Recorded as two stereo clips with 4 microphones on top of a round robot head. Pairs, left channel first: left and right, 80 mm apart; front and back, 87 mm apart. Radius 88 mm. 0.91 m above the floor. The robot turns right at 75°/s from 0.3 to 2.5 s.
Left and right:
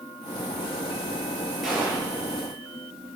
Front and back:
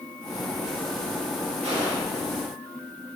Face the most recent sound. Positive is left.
turn(degrees=-115)